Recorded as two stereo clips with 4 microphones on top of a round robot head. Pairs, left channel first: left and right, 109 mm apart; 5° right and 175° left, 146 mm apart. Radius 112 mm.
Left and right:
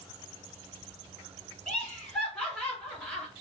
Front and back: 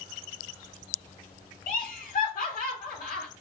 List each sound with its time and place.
1.7 s laughter: 10° left, 2.0 m